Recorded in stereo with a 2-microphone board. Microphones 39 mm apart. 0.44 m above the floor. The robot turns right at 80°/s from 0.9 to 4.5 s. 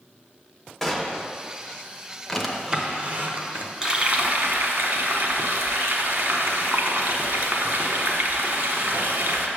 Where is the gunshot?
5° left (ahead or behind), 0.8 m; by 1.3 s 15° right (ahead or behind), 0.8 m.